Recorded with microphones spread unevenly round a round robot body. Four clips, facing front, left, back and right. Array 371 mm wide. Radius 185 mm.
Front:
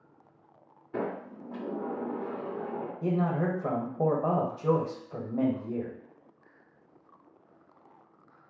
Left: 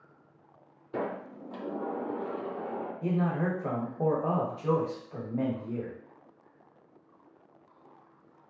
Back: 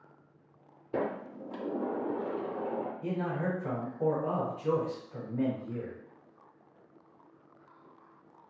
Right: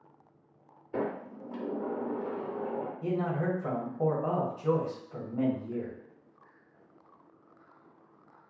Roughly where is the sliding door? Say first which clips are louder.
Right 1 dB, back 1 dB; behind.